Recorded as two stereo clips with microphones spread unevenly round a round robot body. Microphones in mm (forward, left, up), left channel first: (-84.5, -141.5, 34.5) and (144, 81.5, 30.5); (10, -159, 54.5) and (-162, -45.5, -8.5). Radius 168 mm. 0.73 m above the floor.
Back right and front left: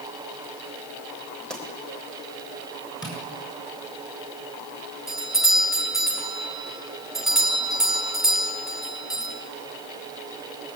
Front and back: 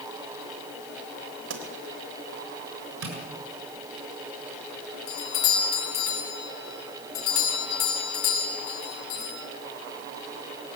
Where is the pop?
135° left, 3.5 m.